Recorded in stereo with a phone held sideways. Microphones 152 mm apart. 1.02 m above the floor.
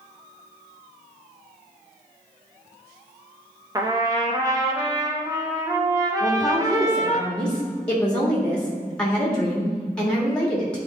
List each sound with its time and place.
3.8 s a trumpet: 25° right (ahead or behind), 0.8 m
6.2 s a woman speaking: 5° left (ahead or behind), 1.6 m